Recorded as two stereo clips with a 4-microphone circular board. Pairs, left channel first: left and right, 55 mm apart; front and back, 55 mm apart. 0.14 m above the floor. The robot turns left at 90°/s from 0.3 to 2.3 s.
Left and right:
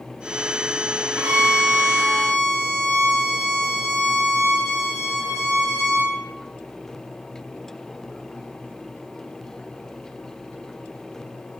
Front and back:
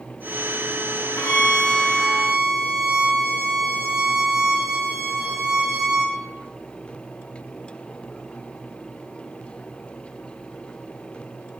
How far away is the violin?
About 6.5 m.